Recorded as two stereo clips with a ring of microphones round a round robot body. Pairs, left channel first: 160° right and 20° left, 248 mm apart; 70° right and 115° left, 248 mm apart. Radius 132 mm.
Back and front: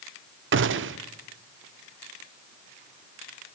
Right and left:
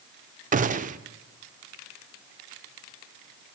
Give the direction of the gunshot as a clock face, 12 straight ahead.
10 o'clock.